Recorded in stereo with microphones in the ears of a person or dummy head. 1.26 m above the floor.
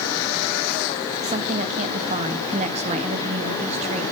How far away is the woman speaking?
About 1.8 m.